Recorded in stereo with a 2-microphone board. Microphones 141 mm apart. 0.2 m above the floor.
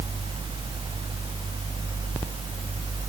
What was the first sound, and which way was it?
Only background noise.